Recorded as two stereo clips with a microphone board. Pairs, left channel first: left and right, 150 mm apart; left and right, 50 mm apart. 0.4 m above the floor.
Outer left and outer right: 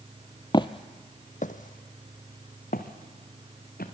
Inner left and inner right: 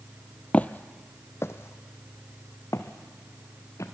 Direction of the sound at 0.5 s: 30° left (ahead or behind).